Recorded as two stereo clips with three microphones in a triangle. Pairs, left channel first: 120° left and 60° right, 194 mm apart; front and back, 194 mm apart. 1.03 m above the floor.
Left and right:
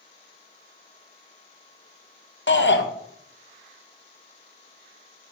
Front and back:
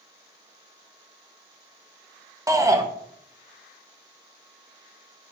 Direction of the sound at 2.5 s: 110° left.